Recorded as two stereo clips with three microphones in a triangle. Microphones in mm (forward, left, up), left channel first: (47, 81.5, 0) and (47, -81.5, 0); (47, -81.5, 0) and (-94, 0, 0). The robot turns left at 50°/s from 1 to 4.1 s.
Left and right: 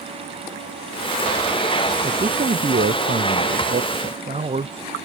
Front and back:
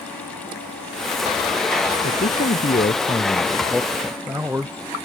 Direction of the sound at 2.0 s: 30° right.